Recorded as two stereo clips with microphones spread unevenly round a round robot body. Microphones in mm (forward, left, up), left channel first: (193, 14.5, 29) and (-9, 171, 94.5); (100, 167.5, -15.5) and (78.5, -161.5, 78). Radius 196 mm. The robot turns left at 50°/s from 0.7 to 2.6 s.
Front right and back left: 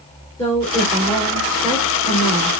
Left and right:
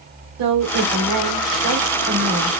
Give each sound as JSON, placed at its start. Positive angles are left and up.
{"t": 0.4, "sound": "a woman speaking", "azimuth_deg": -85, "distance_m": 1.6}